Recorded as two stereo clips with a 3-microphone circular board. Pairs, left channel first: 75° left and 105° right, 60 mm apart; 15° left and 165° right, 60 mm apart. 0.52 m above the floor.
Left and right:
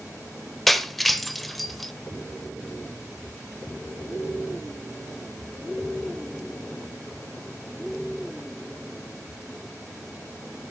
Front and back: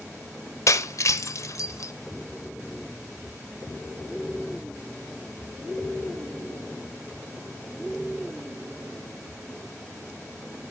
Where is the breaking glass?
15° right, 0.7 m.